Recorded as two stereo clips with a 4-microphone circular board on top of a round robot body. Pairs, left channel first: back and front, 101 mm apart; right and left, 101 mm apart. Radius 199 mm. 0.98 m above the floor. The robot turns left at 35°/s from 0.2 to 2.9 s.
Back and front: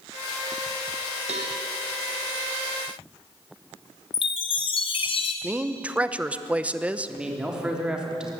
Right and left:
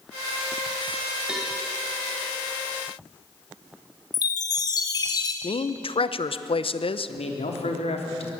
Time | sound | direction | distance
1.3 | a cowbell | 10° left | 1.0 m
4.1 | a chime | 145° right | 0.8 m
5.4 | a woman speaking | 75° right | 1.1 m
7.1 | a man speaking | 85° right | 3.5 m